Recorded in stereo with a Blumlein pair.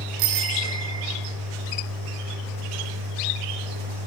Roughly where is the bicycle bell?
Ahead right.